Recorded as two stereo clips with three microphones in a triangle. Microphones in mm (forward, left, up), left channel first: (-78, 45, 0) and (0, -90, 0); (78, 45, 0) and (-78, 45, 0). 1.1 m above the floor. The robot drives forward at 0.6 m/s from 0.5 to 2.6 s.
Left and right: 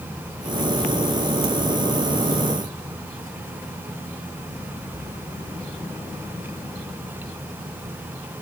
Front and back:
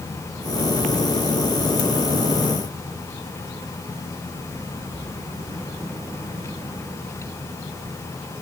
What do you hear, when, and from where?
Only background noise.